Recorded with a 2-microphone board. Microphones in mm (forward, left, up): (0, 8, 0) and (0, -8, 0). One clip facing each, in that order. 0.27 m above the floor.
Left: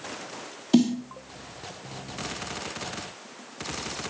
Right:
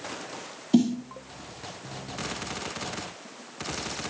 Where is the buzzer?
No buzzer in this recording.